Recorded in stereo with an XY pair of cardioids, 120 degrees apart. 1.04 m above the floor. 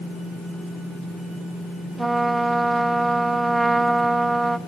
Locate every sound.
2.0 s a trumpet: 15° right, 0.7 m